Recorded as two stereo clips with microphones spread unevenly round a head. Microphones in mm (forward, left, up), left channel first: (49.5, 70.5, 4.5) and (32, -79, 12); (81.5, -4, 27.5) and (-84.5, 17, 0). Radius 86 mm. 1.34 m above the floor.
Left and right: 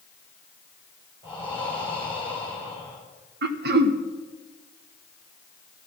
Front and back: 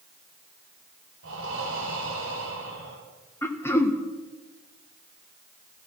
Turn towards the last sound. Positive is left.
turn(degrees=-85)